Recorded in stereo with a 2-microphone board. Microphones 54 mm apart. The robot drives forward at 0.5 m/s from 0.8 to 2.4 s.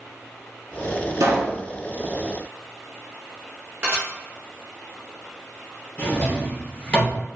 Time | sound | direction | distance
1.2 | a pop | 70° right (ahead or behind) | 0.7 m
3.8 | dishes clattering | 25° right (ahead or behind) | 1.5 m
6.0 | a drawer | 20° left (ahead or behind) | 1.4 m